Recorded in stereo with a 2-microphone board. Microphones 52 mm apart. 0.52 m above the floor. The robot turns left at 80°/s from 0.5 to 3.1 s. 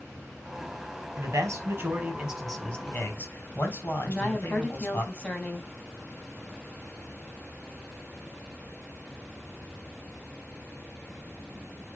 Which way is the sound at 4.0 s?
20° left (ahead or behind).